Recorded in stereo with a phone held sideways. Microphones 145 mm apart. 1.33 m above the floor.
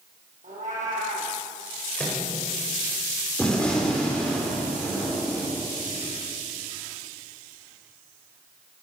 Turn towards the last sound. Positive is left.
turn(degrees=5)  # may be behind; listen again after turning